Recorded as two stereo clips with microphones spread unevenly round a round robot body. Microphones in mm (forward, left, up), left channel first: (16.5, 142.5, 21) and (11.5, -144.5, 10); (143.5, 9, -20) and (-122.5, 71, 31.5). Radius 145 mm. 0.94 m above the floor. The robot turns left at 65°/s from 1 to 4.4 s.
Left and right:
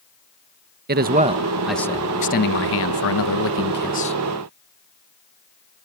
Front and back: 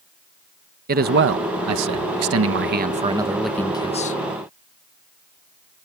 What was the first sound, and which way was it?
A man speaking, 135° right.